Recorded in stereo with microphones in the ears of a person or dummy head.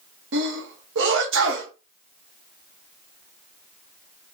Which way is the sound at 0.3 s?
65° right (ahead or behind).